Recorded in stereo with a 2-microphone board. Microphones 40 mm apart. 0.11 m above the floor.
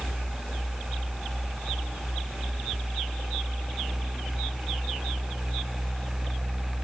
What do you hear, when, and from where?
Only background noise.